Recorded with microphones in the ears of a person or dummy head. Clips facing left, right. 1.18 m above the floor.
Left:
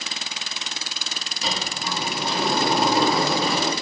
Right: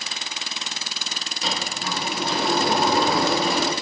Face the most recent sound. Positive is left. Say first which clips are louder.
# even
turn(degrees=0)  # may be behind; listen again after turning